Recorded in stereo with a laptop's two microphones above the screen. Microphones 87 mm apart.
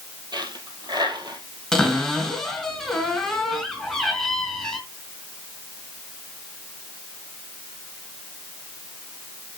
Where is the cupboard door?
5° left (ahead or behind), 3.5 m.